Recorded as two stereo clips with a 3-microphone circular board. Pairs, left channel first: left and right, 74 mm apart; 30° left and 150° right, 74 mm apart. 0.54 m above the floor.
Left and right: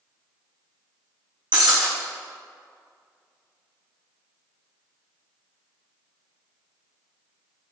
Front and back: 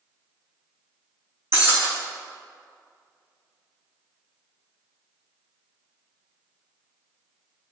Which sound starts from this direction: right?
Breaking glass, at 1.5 s.